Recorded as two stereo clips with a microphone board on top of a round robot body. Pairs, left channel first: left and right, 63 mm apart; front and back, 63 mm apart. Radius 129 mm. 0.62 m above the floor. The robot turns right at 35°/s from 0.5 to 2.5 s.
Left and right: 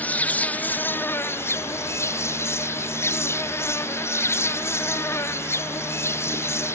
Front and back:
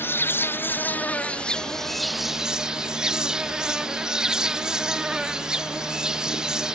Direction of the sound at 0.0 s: 35° left.